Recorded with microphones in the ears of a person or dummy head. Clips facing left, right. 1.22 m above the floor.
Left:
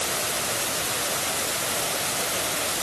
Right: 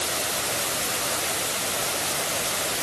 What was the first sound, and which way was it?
Only background noise.